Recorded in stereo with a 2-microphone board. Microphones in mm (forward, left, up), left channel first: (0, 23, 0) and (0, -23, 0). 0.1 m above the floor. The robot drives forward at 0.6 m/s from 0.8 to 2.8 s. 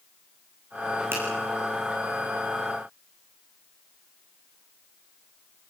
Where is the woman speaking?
No woman speaking in this recording.